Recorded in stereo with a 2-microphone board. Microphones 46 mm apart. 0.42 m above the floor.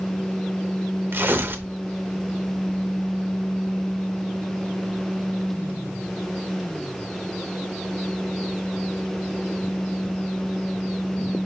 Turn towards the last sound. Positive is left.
turn(degrees=-50)  # may be behind; listen again after turning